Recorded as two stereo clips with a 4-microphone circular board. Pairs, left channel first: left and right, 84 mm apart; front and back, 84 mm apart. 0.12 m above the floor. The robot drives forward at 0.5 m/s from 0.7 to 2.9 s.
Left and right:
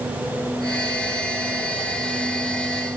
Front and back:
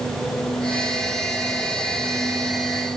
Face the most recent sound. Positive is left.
No sound to turn to.